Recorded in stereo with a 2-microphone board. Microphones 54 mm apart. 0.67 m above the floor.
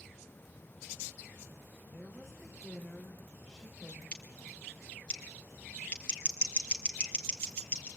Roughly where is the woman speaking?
Centre.